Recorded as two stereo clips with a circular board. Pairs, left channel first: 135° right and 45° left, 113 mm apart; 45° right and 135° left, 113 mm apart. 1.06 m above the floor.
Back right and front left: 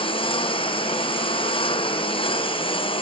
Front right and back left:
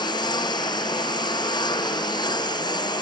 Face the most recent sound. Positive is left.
turn(degrees=-95)